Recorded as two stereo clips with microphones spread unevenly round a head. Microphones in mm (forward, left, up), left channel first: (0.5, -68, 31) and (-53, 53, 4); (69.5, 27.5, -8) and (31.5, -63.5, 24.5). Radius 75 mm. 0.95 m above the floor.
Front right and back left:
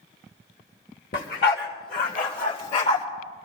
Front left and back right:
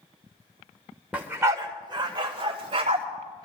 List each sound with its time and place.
1.1 s a dog barking: 40° right, 1.4 m; by 3.0 s 100° right, 2.5 m